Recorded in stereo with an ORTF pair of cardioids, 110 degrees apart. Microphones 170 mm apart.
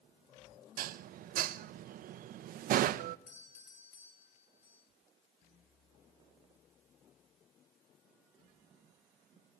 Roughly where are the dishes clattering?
Ahead right.